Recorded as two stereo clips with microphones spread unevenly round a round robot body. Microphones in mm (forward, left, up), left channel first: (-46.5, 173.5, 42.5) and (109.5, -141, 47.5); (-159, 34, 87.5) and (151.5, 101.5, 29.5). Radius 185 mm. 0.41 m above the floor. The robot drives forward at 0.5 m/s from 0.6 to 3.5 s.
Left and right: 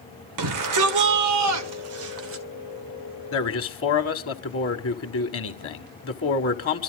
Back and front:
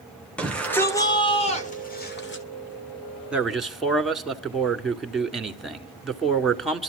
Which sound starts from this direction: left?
A man speaking, at 3.3 s.